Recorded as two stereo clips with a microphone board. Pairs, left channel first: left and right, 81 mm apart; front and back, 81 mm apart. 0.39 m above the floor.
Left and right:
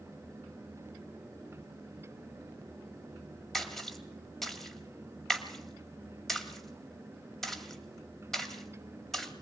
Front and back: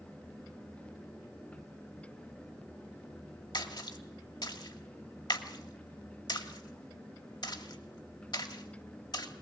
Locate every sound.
3.5 s a splash: 5° left, 2.5 m